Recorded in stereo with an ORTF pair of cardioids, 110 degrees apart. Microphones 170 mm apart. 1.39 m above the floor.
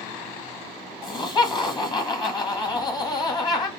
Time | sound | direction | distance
1.0 | laughter | 25° left | 1.4 m